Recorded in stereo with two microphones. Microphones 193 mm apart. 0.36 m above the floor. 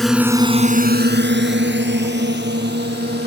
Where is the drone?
Centre (ahead or behind); by 3.3 s 65° right (ahead or behind).